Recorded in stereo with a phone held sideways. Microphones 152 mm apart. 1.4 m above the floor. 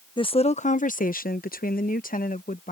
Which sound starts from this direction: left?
A woman speaking, at 0.2 s.